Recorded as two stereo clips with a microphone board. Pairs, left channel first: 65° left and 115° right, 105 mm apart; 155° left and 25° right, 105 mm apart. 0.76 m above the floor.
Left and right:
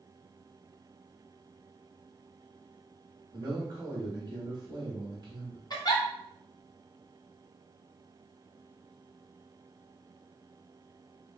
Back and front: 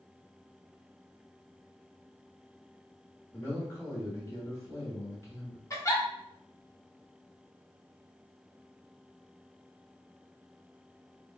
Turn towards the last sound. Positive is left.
turn(degrees=105)